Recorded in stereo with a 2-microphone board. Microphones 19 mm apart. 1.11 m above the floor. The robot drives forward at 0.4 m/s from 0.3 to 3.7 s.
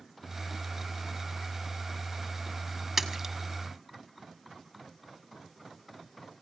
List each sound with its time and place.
3.0 s a splash: 15° right (ahead or behind), 1.9 m